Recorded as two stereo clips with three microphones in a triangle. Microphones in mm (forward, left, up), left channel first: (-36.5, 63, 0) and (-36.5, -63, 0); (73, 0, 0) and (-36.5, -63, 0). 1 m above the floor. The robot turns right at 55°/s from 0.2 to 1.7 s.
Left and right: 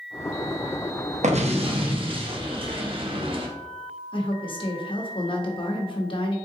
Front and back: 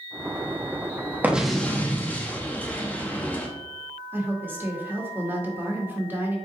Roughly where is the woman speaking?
Behind left.